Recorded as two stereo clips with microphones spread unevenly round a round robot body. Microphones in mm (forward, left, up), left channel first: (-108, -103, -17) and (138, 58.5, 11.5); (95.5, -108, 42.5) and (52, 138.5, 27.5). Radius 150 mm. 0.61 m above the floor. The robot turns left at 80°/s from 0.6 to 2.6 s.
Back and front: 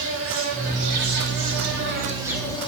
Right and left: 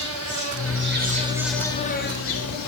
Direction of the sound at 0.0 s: 85° left.